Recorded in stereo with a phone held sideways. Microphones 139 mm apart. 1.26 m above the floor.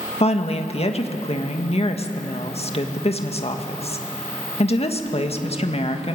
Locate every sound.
0.2 s a woman speaking: 50° left (ahead or behind), 1.7 m